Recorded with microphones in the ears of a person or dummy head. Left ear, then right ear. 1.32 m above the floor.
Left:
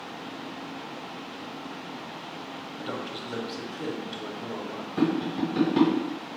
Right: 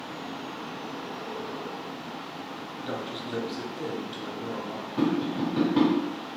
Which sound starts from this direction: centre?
A man speaking, at 2.8 s.